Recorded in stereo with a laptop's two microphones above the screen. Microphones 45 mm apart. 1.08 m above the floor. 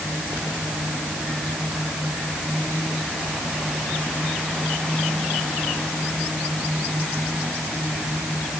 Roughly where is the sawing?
I don't hear sawing.